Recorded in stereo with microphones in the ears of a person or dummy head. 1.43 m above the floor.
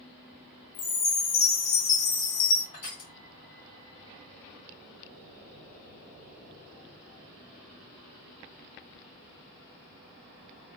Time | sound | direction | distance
0.7 | a chime | 45° left (ahead or behind) | 1.1 m
2.7 | crushing | 25° left (ahead or behind) | 1.3 m